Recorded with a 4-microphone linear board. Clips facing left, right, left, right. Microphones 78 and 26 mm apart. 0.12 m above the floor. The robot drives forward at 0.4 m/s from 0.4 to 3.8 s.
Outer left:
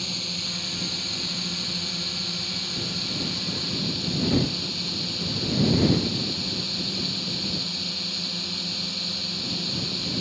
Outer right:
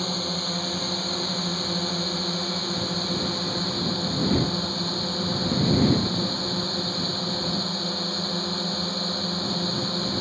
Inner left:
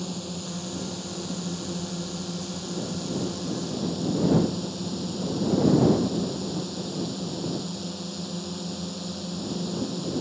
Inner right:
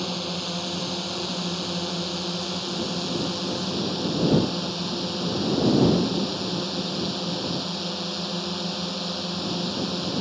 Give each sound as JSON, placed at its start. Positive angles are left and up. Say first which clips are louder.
{"t": 0.0, "sound": "a drone", "louder": "outer right 7 dB, inner right 5 dB", "side_deg": -45}